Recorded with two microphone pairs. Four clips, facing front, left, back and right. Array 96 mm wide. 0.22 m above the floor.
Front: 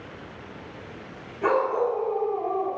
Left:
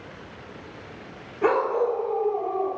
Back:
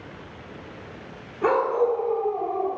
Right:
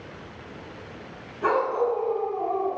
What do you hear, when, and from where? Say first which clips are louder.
1.4 s a dog barking: left 1 dB, back 2 dB; 100° left, 1.5 m; by 2.8 s 115° left, 2 m